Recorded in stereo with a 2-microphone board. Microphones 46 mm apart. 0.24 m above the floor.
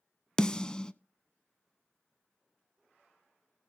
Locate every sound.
0.4 s a snare drum: 20° left (ahead or behind), 0.5 m